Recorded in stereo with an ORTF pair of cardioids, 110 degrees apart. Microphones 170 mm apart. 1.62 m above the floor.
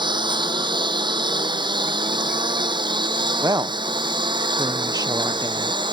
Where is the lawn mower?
30° right; by 5.9 s 25° right.